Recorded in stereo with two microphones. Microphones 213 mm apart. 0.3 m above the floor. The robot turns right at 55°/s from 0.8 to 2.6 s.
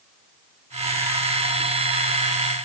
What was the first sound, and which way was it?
Only background noise.